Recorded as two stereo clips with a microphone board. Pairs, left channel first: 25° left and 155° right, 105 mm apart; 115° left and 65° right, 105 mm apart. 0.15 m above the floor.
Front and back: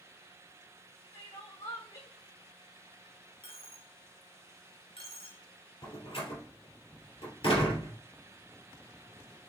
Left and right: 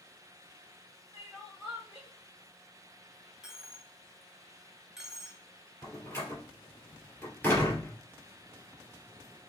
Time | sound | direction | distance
1.1 | crying | 5° left | 2 m
3.4 | a dropped coin | 15° left | 0.6 m
5.8 | a door slam | 40° left | 2 m